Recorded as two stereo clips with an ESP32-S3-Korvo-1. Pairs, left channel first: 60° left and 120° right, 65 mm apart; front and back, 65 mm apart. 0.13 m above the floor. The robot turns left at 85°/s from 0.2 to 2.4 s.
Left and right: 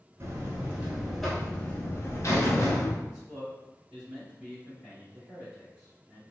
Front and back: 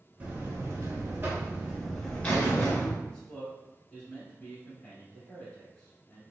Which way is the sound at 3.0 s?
60° right.